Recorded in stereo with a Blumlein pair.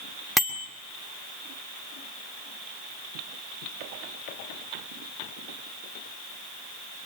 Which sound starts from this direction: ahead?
A bicycle bell, at 0.4 s.